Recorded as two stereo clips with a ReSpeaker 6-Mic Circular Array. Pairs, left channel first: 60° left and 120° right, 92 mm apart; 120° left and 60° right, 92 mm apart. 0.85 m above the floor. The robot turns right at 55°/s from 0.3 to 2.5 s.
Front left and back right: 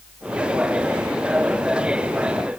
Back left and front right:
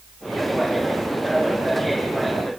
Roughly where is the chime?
I don't hear a chime.